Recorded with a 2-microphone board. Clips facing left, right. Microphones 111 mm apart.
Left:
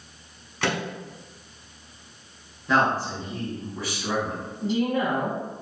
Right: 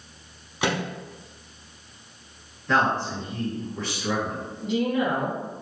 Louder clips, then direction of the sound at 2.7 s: Left 1 dB; 10° left (ahead or behind).